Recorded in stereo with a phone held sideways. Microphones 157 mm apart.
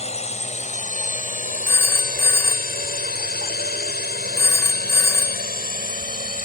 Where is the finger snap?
I don't hear a finger snap.